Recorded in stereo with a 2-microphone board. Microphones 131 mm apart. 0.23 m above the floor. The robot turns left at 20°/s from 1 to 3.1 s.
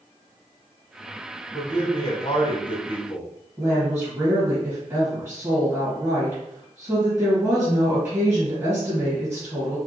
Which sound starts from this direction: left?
A man speaking, at 1.5 s.